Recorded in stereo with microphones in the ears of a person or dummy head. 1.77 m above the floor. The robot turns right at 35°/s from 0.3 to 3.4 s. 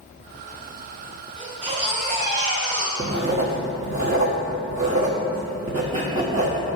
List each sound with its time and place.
1.4 s a baby crying: 160° right, 3.5 m; by 2.9 s 105° right, 3.5 m
3.0 s writing: 20° right (ahead or behind), 1.3 m; by 6.6 s 25° right (ahead or behind), 1.3 m